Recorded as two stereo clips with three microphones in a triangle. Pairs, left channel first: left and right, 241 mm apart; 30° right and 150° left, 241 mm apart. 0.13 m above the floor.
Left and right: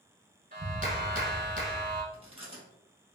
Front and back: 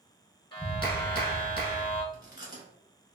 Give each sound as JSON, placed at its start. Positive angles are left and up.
{"t": 0.5, "sound": "a clap", "azimuth_deg": -85, "distance_m": 1.1}
{"t": 2.1, "sound": "chewing", "azimuth_deg": -145, "distance_m": 1.3}